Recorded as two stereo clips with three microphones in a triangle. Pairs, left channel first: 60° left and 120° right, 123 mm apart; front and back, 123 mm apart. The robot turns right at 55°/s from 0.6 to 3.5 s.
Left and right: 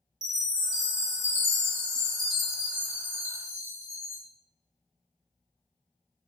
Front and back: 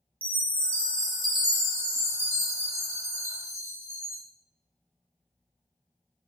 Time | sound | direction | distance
0.2 | a chime | 55° left | 1.0 m